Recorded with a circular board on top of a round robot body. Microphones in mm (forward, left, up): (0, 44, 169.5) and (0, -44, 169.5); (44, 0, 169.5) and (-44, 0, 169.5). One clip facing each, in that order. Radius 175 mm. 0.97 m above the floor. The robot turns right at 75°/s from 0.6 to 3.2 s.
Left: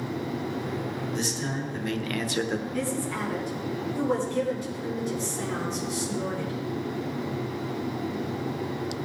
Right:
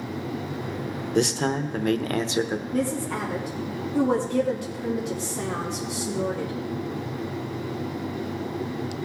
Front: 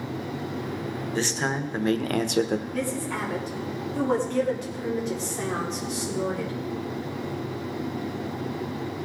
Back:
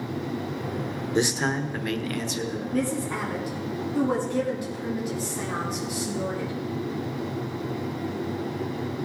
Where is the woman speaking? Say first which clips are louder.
Right 3 dB, back 2 dB; 135° right, 3 m; by 6.5 s 100° right, 3 m.